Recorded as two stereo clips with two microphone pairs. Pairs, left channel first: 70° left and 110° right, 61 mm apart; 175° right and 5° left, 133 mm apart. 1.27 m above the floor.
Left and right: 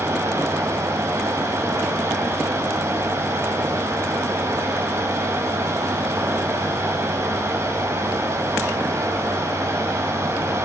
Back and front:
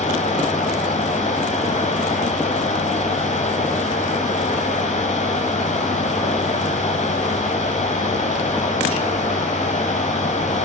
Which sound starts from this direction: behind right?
Running water, at 0.0 s.